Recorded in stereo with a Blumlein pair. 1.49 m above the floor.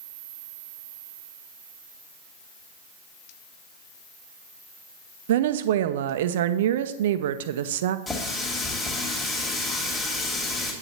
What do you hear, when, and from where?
5.3 s a woman speaking: 55° right, 0.6 m
8.1 s a running tap: 10° left, 2.5 m